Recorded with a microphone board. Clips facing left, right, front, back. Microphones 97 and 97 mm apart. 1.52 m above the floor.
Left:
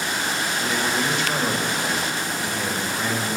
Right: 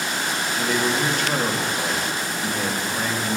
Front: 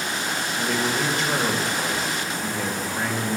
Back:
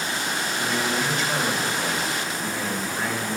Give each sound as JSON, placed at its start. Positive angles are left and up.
{"t": 0.6, "sound": "a man speaking", "azimuth_deg": -45, "distance_m": 2.0}